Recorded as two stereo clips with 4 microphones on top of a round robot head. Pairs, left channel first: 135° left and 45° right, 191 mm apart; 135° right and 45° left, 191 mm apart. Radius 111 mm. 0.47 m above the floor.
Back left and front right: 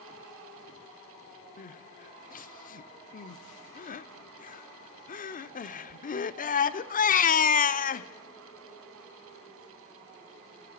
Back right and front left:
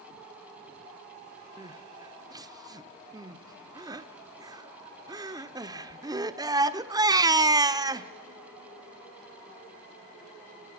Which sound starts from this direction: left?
Crying, at 1.6 s.